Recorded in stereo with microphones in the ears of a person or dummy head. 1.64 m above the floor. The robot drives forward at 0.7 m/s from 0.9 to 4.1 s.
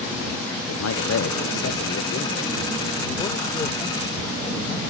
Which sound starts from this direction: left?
A man speaking, at 0.7 s.